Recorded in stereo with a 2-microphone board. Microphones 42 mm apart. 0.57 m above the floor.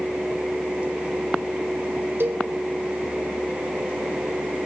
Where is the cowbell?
65° right (ahead or behind), 1.1 m.